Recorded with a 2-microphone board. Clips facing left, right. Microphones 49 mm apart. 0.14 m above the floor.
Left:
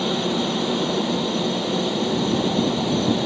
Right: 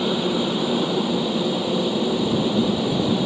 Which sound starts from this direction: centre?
A helicopter, at 0.0 s.